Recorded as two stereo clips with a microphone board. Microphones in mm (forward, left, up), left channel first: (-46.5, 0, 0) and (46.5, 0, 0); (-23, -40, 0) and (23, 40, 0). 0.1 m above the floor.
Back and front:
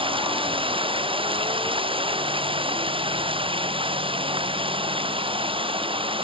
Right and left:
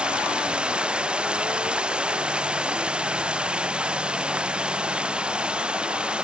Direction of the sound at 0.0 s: 20° right.